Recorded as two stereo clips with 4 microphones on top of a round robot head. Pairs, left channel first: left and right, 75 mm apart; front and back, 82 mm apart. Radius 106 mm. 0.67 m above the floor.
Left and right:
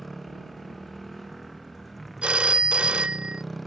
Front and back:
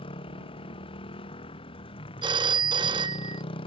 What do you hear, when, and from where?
0.0 s a motorcycle: straight ahead
2.2 s a phone ringing: 165° right